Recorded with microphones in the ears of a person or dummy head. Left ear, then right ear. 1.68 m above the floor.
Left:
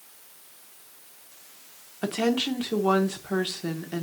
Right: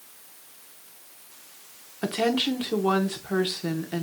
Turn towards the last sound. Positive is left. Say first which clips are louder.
# right 1 dB
turn(degrees=5)  # may be behind; listen again after turning